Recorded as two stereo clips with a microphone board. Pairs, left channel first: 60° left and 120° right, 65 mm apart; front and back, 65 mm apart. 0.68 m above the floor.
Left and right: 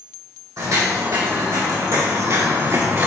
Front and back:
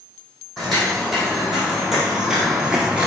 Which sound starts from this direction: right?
Footsteps, at 0.6 s.